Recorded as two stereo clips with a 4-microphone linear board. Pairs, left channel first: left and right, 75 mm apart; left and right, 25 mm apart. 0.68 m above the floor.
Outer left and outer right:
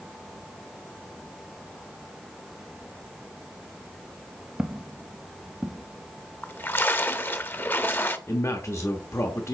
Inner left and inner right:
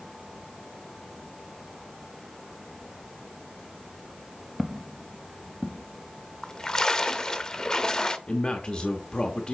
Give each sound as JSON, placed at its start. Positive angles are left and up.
{"t": 4.6, "sound": "footsteps", "side_deg": -15, "distance_m": 0.7}
{"t": 6.4, "sound": "a splash", "side_deg": 30, "distance_m": 0.7}
{"t": 8.3, "sound": "a man speaking", "side_deg": 40, "distance_m": 0.9}